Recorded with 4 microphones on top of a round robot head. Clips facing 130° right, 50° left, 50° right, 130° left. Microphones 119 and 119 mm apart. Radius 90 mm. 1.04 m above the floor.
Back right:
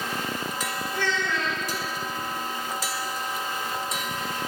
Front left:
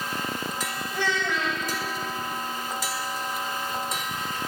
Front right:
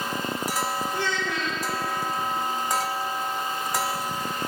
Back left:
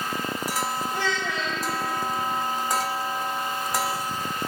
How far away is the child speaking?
About 3 m.